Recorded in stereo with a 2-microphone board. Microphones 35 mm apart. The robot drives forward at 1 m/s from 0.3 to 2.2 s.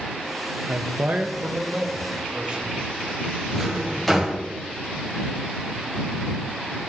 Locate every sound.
0.7 s a man speaking: 45° right (ahead or behind), 0.6 m; by 2.8 s 20° right (ahead or behind), 1.4 m
3.5 s a drawer: 5° left (ahead or behind), 1.6 m